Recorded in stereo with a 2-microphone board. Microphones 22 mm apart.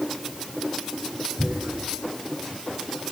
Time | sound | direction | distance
1.4 | tearing paper | 65° right (ahead or behind) | 4.5 m